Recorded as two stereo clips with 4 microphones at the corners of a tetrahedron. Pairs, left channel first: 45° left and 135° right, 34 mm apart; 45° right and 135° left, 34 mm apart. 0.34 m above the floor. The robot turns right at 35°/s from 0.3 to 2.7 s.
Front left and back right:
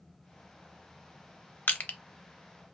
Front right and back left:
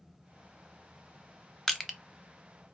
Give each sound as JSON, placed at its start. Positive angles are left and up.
{"t": 1.7, "sound": "crushing", "azimuth_deg": 40, "distance_m": 0.6}